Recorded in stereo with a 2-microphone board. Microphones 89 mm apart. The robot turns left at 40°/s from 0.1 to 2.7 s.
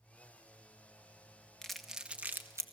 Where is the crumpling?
5° left (ahead or behind), 1.4 m; by 2.6 s 35° right (ahead or behind), 1.4 m.